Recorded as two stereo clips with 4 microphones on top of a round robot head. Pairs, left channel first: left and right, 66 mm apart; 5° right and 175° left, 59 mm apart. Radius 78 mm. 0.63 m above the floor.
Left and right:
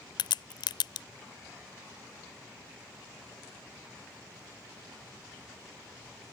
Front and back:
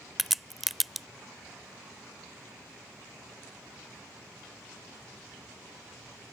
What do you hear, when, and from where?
0.2 s a crack: 90° left